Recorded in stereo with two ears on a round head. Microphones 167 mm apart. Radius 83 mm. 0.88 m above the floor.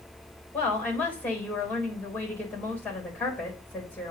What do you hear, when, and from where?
0.5 s a woman speaking: 10° left (ahead or behind), 3.5 m